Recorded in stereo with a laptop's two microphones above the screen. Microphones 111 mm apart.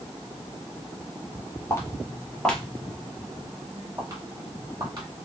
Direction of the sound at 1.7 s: 25° left (ahead or behind).